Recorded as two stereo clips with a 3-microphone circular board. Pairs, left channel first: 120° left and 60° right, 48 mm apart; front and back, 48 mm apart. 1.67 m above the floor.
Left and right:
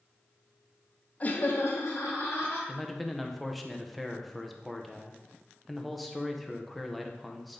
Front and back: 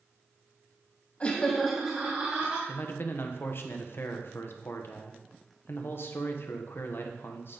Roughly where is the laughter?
Ahead left.